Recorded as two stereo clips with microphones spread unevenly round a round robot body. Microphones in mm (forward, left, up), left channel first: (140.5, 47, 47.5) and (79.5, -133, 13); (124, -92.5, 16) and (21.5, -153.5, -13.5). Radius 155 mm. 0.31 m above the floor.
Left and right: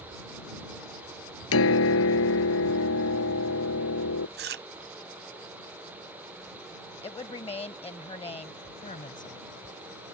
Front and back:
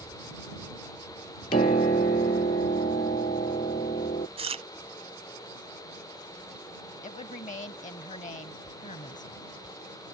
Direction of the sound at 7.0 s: 10° left.